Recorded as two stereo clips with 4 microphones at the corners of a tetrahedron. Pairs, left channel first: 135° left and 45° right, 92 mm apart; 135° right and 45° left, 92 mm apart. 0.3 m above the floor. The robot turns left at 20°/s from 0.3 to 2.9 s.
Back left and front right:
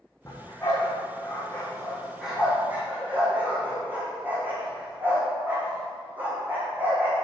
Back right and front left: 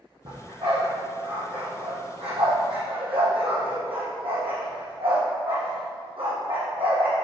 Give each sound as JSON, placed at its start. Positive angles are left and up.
{"t": 0.2, "sound": "a dog barking", "azimuth_deg": 80, "distance_m": 3.5}